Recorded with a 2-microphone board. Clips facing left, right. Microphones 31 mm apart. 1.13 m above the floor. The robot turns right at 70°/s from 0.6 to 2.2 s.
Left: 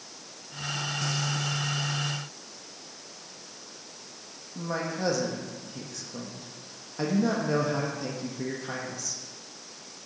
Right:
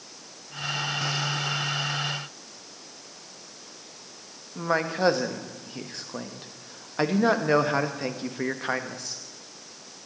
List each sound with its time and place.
4.5 s a man speaking: 50° right (ahead or behind), 1.3 m